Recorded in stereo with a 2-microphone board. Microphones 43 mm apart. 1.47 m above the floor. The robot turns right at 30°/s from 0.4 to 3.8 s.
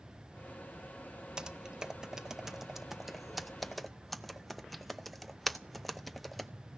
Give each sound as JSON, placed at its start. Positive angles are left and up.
{"t": 1.4, "sound": "typing on a keyboard", "side_deg": -20, "distance_m": 0.6}